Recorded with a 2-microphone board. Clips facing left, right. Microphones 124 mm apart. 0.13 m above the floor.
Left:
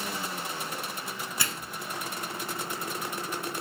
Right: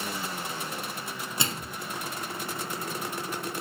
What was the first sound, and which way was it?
A microwave, 25° right (ahead or behind).